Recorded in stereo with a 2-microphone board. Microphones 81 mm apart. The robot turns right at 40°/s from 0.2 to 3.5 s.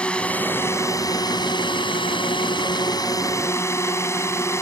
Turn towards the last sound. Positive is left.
turn(degrees=145)